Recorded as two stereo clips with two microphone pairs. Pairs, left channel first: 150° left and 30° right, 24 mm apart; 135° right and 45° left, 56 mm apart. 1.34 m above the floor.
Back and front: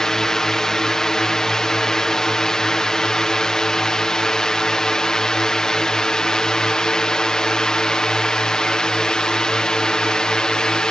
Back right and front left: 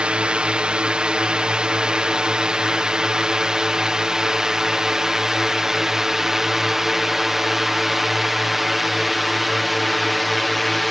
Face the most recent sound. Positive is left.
turn(degrees=135)